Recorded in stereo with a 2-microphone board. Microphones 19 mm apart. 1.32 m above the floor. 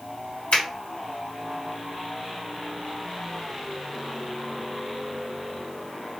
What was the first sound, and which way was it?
A finger snap, 90° left.